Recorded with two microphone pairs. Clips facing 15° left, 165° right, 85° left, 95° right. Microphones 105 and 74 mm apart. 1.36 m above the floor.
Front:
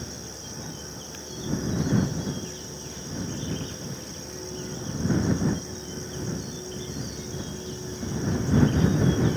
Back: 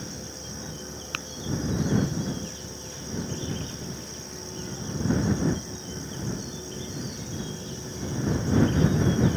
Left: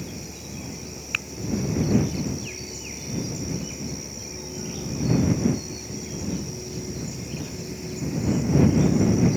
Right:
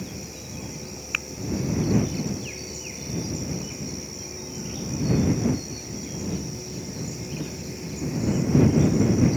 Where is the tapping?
Straight behind.